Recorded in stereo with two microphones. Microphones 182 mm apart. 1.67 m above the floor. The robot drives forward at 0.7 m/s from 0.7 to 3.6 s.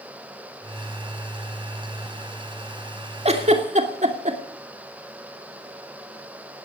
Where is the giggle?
35° right (ahead or behind), 2.5 m; by 4.4 s 40° right (ahead or behind), 2.5 m.